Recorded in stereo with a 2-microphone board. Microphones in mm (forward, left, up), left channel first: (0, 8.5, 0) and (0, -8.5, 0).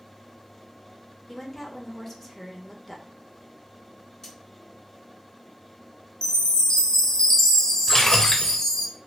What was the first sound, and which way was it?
A woman speaking, 15° left (ahead or behind).